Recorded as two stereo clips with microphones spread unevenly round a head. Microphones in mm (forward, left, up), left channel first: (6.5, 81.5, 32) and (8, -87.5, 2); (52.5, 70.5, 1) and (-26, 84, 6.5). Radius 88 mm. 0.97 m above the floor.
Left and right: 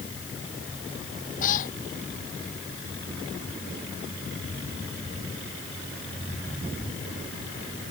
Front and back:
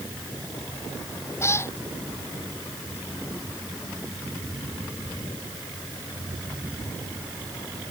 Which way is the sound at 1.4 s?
45° left.